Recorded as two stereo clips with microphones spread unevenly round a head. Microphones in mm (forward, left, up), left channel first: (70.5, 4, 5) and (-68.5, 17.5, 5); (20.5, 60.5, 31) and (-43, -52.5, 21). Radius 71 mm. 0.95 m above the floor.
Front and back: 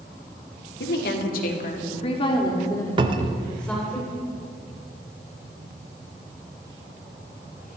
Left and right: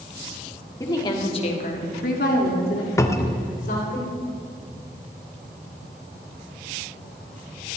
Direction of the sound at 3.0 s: 125° left.